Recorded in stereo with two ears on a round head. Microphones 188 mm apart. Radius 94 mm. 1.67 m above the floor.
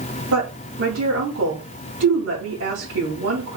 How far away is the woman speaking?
About 5 m.